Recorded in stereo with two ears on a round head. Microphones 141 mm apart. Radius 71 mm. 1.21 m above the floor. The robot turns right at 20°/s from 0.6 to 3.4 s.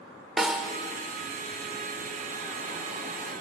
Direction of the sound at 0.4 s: 5° right (ahead or behind).